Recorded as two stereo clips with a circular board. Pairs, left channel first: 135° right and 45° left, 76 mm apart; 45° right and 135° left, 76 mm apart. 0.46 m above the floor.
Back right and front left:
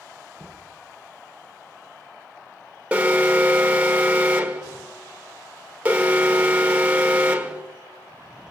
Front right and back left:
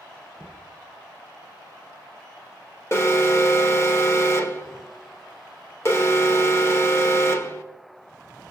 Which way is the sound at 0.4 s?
105° right.